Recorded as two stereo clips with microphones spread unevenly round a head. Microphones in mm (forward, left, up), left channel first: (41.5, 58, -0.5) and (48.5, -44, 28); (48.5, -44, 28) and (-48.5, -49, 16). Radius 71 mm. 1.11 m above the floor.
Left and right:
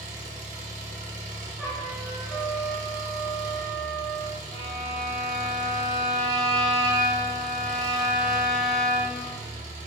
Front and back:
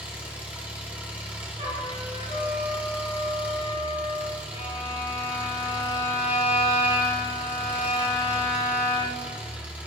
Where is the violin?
150° left, 3.5 m.